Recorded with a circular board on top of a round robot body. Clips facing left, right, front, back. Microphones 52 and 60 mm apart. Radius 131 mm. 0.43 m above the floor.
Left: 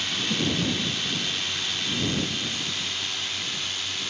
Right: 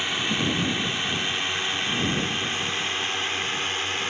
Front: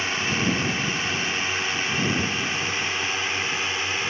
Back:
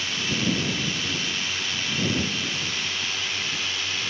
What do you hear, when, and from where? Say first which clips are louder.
0.0 s a drone: right 2 dB, front 3 dB; 35° right; by 4.1 s 55° right